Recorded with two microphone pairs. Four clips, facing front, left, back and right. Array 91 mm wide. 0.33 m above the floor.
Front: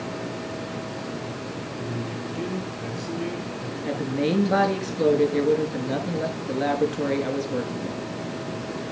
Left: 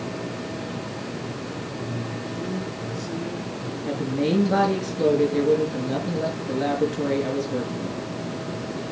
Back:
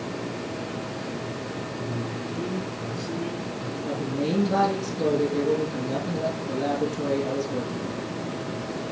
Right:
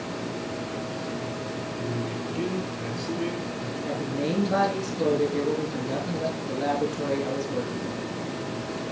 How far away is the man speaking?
About 7 m.